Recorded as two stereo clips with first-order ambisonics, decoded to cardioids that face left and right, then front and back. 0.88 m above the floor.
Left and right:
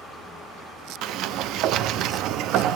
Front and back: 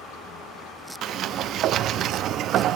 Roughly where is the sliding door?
Behind right.